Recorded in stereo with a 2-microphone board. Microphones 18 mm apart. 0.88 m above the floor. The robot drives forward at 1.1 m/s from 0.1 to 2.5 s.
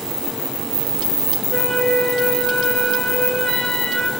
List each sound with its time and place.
1.5 s a flute: 50° left (ahead or behind), 5 m; by 4.1 s 40° left (ahead or behind), 6 m